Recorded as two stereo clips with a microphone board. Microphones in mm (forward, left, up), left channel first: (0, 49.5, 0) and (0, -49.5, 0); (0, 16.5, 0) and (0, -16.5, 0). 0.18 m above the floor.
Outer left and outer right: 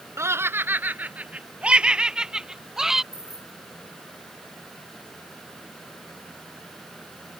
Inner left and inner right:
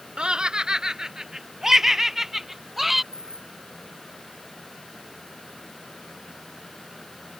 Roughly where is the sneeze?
No sneeze in this recording.